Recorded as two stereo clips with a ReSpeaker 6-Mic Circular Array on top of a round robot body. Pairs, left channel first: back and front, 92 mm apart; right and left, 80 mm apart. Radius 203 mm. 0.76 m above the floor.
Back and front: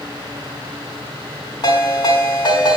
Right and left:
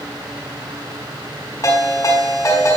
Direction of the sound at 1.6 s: 140° right.